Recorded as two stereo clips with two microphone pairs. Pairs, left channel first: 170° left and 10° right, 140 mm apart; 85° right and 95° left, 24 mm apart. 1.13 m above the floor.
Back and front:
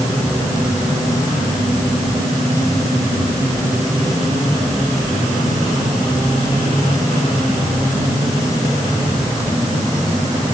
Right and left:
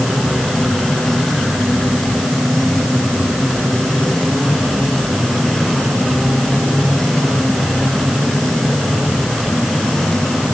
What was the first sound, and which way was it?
Only background noise.